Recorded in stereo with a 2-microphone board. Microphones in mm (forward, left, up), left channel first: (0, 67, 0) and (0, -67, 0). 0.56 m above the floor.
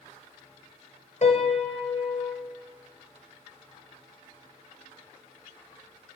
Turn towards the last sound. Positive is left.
turn(degrees=60)  # may be behind; listen again after turning